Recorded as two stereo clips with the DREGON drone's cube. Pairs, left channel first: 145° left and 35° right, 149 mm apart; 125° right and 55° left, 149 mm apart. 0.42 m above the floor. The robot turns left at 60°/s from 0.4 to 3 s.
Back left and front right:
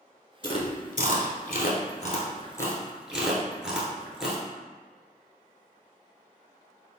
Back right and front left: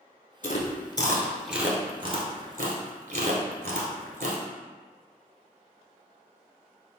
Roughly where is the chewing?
Behind right.